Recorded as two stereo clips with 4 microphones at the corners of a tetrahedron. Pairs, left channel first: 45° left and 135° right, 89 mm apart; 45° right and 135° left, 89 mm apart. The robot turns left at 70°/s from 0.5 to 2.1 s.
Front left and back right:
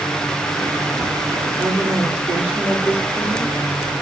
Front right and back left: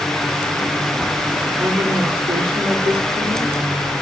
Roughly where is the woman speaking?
Behind.